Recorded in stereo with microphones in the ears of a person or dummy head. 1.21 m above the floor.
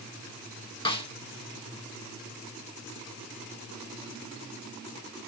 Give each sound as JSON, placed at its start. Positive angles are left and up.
{"t": 0.8, "sound": "a snare drum", "side_deg": 25, "distance_m": 1.0}